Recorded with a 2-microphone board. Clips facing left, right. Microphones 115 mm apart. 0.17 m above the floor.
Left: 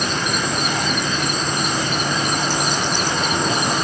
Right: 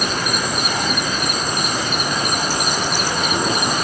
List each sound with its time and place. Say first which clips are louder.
0.0 s an insect: even; 10° right (ahead or behind)